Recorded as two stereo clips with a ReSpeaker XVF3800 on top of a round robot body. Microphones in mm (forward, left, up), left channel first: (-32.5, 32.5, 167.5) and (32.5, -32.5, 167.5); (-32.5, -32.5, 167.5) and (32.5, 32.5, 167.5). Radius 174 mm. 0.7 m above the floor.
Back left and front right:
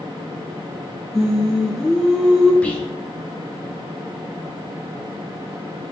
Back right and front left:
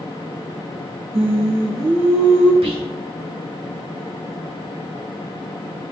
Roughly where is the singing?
Ahead left.